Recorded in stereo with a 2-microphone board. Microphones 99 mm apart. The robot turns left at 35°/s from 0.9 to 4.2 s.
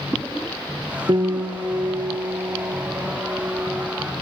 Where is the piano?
85° right, 0.8 m; by 4.2 s 170° left, 0.8 m.